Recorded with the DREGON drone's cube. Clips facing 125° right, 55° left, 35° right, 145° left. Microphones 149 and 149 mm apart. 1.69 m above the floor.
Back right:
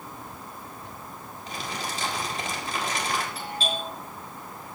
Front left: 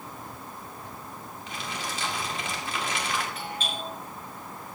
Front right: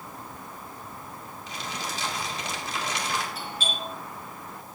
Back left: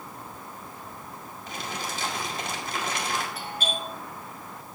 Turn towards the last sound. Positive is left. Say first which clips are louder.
# back right 3 dB, back left 2 dB
turn(degrees=180)